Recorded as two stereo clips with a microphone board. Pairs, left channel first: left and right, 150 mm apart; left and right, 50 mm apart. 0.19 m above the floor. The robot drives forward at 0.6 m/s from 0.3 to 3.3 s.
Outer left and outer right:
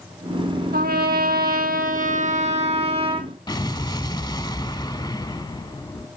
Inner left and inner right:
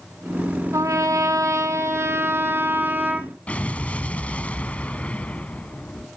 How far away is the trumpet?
About 1.0 m.